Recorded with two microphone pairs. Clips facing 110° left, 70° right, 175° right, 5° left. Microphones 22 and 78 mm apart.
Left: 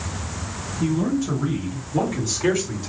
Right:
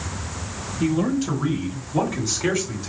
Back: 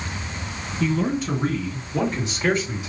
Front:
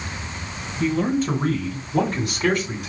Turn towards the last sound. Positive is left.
turn(degrees=25)